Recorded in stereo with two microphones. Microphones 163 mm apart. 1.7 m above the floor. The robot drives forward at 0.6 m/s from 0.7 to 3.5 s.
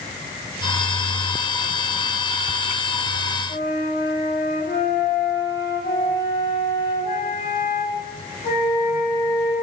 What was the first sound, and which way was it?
A flute, 60° left (ahead or behind).